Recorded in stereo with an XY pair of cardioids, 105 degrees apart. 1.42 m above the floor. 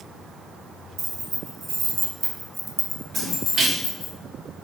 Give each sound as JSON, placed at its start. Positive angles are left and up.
{"t": 1.0, "sound": "keys jangling", "azimuth_deg": -60, "distance_m": 1.2}
{"t": 3.1, "sound": "a splash", "azimuth_deg": -55, "distance_m": 1.8}